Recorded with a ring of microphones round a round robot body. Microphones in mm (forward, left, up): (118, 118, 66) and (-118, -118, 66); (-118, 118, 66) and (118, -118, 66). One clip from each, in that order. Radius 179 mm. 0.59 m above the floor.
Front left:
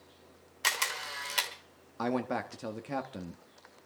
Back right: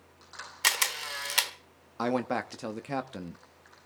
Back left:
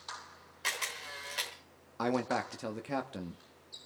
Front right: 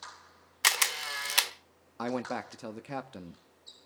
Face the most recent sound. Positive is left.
turn(degrees=-125)